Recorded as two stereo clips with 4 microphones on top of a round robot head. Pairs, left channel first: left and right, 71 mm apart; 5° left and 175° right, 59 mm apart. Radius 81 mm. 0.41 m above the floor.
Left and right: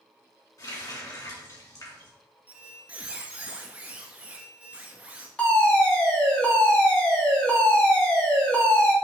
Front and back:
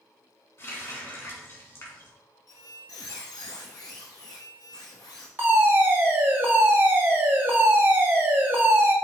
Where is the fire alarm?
160° left, 3 m.